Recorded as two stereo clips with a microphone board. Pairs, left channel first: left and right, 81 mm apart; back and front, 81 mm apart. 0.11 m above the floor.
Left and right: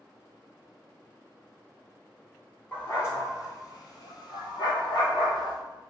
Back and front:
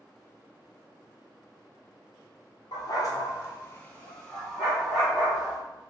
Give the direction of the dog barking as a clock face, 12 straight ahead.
7 o'clock.